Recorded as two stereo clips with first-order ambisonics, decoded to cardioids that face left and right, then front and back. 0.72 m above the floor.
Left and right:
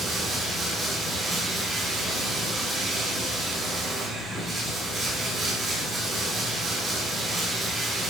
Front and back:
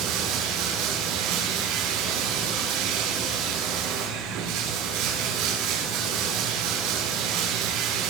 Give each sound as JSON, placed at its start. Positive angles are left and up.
{"t": 0.0, "sound": "running water", "azimuth_deg": -165, "distance_m": 8.0}